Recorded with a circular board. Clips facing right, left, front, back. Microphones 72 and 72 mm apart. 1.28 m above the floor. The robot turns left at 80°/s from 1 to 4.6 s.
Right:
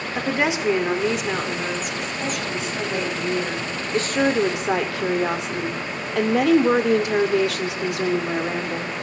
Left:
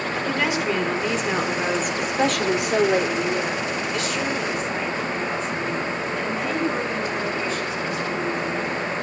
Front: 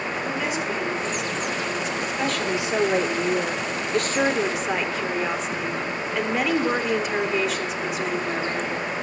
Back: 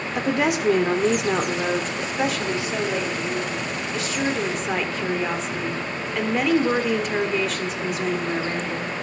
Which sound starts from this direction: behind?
A woman speaking, at 0.1 s.